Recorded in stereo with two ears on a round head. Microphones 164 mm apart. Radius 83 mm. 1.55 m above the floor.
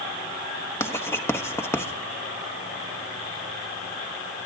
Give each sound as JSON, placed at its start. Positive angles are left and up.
{"t": 0.8, "sound": "writing", "side_deg": 15, "distance_m": 1.4}